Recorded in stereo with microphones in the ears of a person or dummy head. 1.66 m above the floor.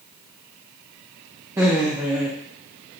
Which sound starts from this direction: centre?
Laughter, at 1.6 s.